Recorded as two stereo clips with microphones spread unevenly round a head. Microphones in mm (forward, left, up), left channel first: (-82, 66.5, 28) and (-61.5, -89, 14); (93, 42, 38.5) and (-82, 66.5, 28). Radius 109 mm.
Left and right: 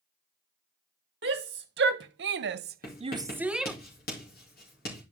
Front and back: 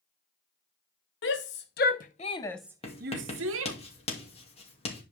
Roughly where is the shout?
Ahead right.